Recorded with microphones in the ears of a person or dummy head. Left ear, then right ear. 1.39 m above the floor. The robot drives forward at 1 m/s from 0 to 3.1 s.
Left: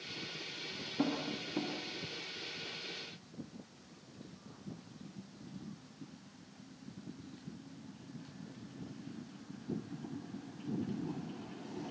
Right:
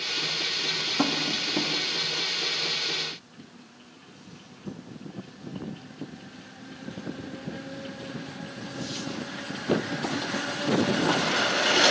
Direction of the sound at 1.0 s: 45° right (ahead or behind).